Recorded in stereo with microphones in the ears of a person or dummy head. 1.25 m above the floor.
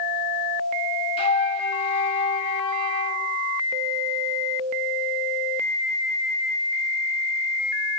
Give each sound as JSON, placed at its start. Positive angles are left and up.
{"t": 1.2, "sound": "a flute", "side_deg": 30, "distance_m": 1.7}